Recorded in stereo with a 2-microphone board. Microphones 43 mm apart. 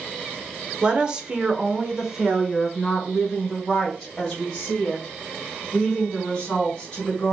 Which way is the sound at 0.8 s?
25° right (ahead or behind).